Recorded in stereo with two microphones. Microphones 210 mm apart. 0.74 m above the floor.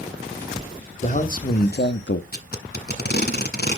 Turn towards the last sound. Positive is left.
turn(degrees=50)  # may be behind; listen again after turning